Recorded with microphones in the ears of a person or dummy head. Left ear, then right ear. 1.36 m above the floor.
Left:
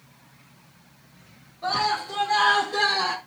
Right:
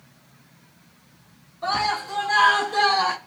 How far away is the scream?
About 3 m.